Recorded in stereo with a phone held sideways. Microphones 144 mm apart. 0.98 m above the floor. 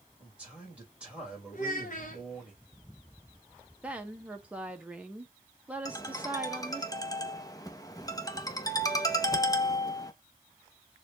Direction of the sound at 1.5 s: 60° left (ahead or behind).